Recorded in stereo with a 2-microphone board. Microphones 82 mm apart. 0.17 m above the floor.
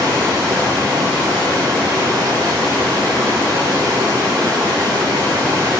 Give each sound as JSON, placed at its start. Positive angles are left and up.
{"t": 0.0, "sound": "running water", "side_deg": -35, "distance_m": 8.0}